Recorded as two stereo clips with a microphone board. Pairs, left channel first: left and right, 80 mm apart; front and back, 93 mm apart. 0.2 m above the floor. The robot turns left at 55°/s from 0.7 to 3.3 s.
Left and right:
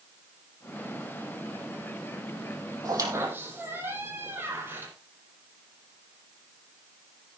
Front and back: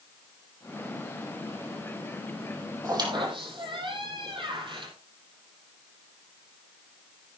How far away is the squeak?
About 5 m.